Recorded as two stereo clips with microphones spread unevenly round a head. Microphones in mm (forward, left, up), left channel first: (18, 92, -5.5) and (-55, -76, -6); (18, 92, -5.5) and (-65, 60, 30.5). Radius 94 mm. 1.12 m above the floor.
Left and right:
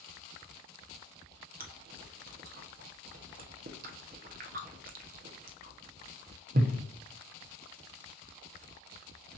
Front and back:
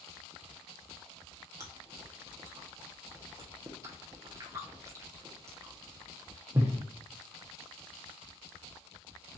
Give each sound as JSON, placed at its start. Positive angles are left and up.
{"t": 1.6, "sound": "chewing", "azimuth_deg": -85, "distance_m": 0.6}